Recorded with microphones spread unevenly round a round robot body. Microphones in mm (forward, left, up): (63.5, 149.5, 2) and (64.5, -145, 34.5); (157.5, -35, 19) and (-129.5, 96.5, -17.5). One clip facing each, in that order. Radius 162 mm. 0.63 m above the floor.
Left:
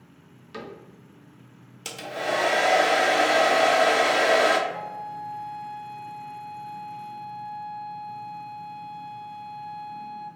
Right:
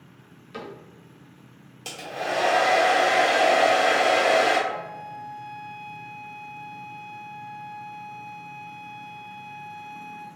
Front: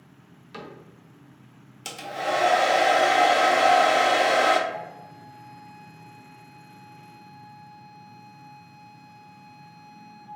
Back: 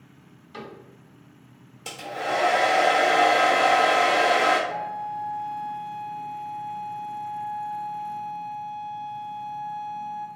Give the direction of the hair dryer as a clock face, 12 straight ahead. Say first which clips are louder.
Left 2 dB, even; 11 o'clock.